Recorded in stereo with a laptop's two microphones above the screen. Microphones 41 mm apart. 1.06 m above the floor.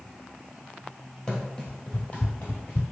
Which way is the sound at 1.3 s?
25° left (ahead or behind).